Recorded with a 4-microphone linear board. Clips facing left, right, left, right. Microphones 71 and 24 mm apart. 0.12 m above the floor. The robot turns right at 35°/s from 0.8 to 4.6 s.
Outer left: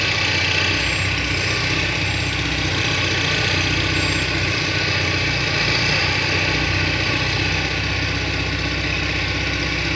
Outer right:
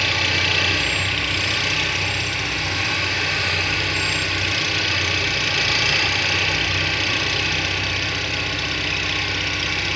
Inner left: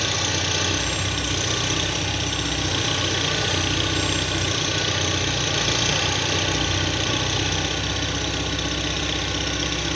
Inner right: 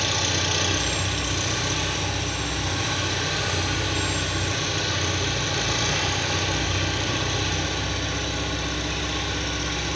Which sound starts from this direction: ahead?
An engine running, at 0.0 s.